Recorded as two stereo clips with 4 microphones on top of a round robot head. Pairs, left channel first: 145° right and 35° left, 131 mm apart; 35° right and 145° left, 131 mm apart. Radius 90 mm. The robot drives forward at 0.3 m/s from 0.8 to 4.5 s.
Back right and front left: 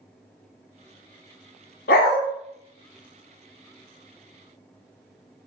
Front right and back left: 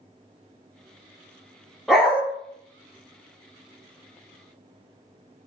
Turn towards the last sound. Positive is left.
turn(degrees=-160)